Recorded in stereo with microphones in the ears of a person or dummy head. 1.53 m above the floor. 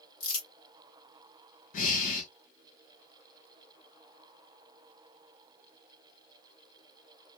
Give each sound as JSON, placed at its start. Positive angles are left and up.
{"t": 0.2, "sound": "crumpling", "side_deg": 55, "distance_m": 2.5}
{"t": 1.7, "sound": "breathing", "side_deg": 40, "distance_m": 1.1}